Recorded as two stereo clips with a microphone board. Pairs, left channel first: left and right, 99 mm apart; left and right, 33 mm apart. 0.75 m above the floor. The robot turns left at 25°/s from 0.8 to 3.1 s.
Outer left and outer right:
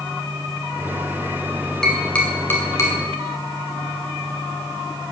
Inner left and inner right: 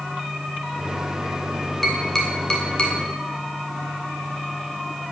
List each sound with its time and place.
1.8 s tapping: 5° left (ahead or behind), 2.5 m; by 3.0 s 35° left (ahead or behind), 2.5 m